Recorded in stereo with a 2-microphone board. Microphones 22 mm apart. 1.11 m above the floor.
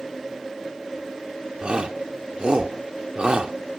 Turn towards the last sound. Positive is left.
turn(degrees=-45)  # may be behind; listen again after turning